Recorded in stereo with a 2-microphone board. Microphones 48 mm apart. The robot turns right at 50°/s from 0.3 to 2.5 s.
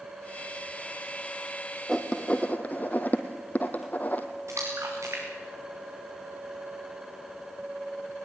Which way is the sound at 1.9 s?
5° left (ahead or behind).